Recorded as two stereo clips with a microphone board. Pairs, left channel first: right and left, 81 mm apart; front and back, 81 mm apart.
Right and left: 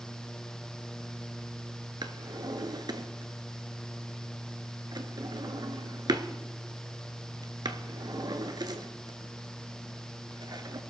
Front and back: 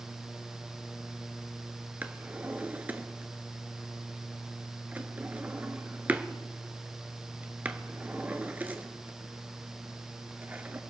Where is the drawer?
110° left, 1.0 m.